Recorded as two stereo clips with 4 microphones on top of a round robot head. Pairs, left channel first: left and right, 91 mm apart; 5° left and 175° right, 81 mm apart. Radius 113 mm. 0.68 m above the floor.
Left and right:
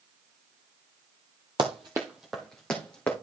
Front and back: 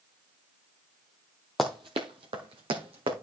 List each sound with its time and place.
1.6 s running footsteps: 85° right, 0.8 m; by 3.1 s 170° left, 2.5 m